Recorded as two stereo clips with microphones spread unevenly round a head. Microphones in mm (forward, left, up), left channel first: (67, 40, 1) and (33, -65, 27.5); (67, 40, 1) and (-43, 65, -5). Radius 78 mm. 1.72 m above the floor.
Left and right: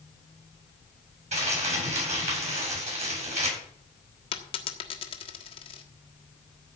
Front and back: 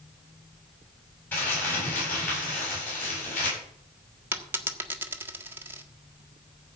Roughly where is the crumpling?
Right.